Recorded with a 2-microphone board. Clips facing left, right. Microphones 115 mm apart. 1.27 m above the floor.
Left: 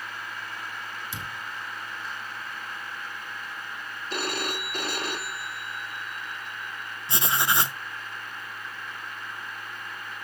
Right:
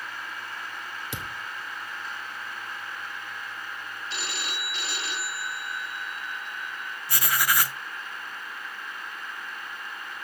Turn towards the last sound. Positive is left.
turn(degrees=25)  # may be behind; listen again after turning